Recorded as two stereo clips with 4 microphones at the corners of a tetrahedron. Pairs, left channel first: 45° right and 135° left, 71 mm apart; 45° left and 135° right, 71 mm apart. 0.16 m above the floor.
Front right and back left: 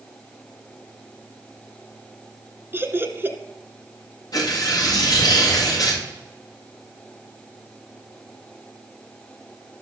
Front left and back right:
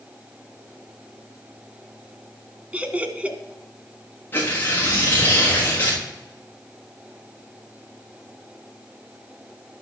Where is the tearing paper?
15° right, 6.5 m.